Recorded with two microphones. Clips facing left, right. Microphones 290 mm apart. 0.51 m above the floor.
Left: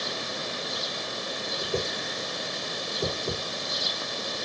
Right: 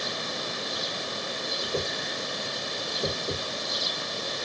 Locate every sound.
1.6 s a whoosh: 60° left (ahead or behind), 1.6 m